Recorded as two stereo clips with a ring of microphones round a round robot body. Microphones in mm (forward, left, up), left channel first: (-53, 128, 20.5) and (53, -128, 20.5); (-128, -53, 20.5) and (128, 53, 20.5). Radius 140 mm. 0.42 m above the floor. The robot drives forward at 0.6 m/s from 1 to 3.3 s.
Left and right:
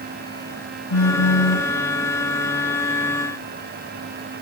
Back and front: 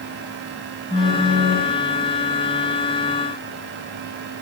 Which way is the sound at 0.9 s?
110° left.